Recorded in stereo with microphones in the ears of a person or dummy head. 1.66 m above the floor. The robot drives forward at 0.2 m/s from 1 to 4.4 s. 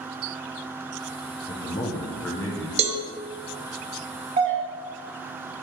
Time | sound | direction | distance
1.5 | a man speaking | 25° left (ahead or behind) | 0.6 m
2.8 | a cowbell | 25° right (ahead or behind) | 0.6 m
4.4 | a doorbell | 30° right (ahead or behind) | 0.8 m